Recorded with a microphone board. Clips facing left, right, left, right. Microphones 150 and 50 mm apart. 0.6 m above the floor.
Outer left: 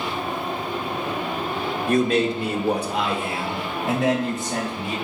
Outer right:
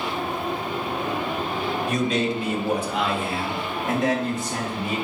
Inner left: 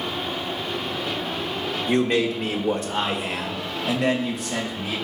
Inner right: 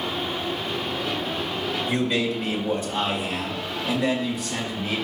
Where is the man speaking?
55° left (ahead or behind), 1.2 m; by 5.0 s 75° left (ahead or behind), 3 m.